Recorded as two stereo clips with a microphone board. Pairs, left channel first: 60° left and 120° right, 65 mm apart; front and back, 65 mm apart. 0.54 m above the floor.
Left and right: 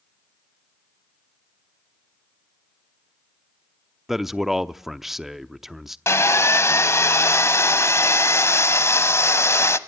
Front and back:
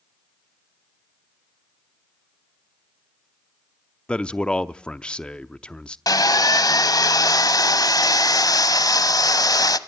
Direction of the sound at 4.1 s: 45° right.